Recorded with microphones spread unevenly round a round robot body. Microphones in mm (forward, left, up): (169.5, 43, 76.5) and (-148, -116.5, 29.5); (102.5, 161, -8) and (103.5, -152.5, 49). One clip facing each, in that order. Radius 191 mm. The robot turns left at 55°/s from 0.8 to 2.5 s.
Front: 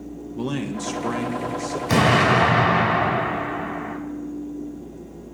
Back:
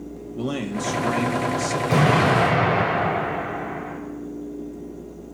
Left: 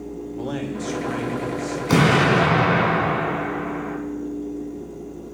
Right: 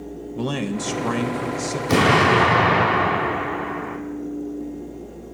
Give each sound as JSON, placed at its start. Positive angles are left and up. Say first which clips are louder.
{"t": 0.3, "sound": "a man speaking", "louder": "even, right 3 dB", "azimuth_deg": -55, "distance_m": 1.5}
{"t": 1.9, "sound": "an explosion", "louder": "front 1 dB, even", "azimuth_deg": 5, "distance_m": 3.5}